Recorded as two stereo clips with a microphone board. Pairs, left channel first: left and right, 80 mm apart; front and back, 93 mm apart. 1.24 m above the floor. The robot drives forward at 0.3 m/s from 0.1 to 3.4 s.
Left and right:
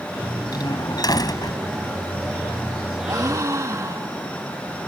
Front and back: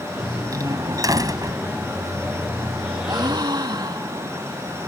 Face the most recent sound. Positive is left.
turn(degrees=-140)